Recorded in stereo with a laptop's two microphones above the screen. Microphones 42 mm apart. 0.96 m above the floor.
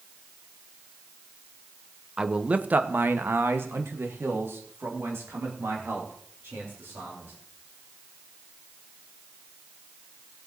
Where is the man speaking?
20° right (ahead or behind), 0.9 m; by 7.3 s 70° right (ahead or behind), 3.5 m.